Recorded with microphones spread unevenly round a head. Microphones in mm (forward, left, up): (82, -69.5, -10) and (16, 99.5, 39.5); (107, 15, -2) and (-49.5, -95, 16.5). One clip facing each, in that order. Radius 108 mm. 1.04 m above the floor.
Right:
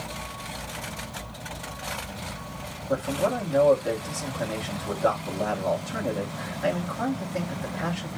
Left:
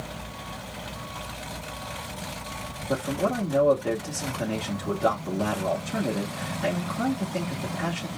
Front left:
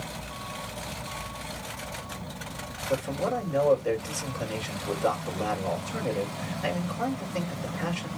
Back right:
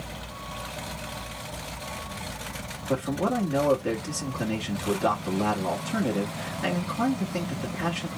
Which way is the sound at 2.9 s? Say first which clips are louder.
Right 1 dB, back right 2 dB; 175° left.